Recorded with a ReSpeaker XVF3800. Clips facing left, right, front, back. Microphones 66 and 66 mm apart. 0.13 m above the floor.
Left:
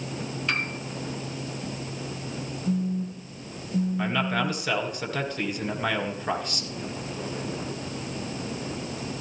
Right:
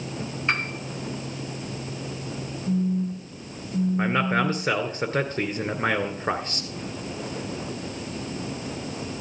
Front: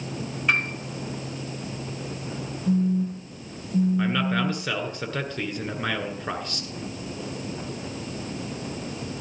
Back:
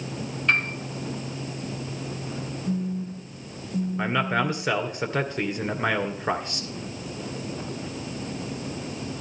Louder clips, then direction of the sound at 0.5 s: Right 3 dB, even; 70° right.